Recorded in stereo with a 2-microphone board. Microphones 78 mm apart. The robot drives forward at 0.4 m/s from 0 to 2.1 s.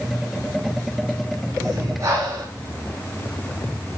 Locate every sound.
1.6 s breathing: 45° right (ahead or behind), 4 m